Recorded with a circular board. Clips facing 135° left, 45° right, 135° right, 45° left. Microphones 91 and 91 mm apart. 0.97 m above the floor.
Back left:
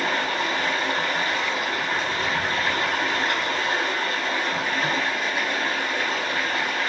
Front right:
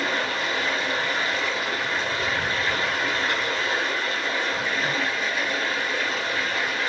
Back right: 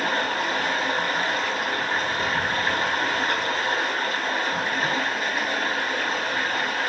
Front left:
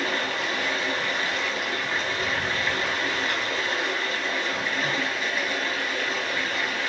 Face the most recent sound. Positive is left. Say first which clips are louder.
# back left 2 dB, back right 3 dB
turn(degrees=180)